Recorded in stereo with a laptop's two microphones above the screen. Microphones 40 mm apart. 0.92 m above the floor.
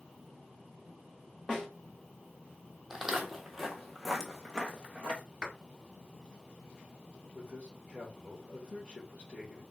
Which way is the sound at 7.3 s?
35° left (ahead or behind).